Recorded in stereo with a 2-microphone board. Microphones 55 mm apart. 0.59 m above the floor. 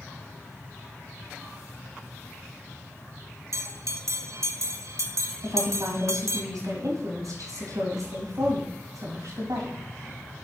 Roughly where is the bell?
Right.